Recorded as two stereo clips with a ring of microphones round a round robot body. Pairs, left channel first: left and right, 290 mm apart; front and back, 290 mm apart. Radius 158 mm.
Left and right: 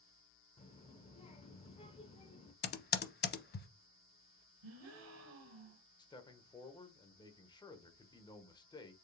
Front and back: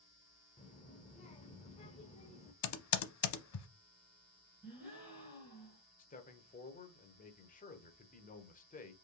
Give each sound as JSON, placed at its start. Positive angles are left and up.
{"t": 0.6, "sound": "a child speaking", "azimuth_deg": 40, "distance_m": 0.7}
{"t": 2.6, "sound": "typing on a keyboard", "azimuth_deg": 30, "distance_m": 0.8}
{"t": 4.6, "sound": "a gasp", "azimuth_deg": -95, "distance_m": 2.0}
{"t": 6.0, "sound": "a man speaking", "azimuth_deg": 30, "distance_m": 0.9}